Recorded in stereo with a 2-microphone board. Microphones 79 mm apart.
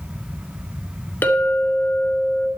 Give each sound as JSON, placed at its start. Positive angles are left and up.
{"t": 1.2, "sound": "a clink", "side_deg": 25, "distance_m": 1.1}